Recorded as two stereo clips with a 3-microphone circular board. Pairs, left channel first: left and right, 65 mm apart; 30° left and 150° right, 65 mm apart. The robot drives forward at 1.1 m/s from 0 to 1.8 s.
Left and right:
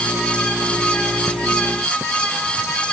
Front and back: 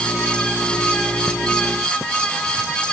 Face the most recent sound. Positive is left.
No sound to turn to.